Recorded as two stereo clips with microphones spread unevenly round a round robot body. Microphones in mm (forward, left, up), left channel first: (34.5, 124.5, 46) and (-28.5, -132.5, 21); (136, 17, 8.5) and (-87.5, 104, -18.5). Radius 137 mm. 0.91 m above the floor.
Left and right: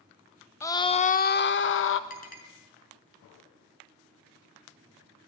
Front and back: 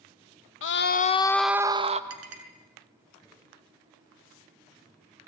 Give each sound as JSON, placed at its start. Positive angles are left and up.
{"t": 0.6, "sound": "a scream", "azimuth_deg": -5, "distance_m": 1.2}
{"t": 2.1, "sound": "a clink", "azimuth_deg": 135, "distance_m": 6.0}